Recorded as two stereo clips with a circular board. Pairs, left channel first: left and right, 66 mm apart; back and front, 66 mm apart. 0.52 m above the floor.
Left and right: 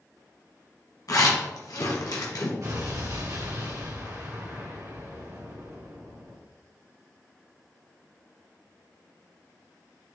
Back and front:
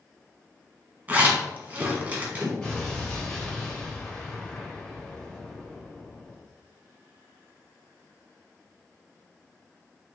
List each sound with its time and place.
1.1 s a zipper: 65° left, 1.1 m
2.6 s an explosion: 100° right, 2 m